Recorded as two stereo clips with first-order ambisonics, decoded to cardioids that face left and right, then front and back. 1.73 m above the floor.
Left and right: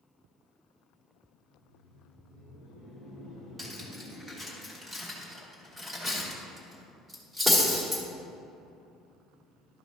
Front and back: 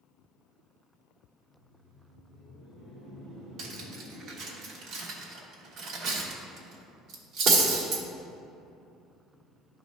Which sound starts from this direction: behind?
Cutlery clinking, at 3.6 s.